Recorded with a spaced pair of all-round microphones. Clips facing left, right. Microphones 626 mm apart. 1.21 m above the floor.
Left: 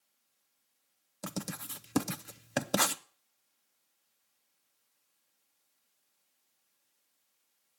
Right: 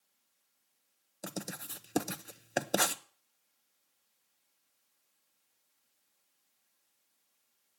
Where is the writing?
35° left (ahead or behind), 0.6 m.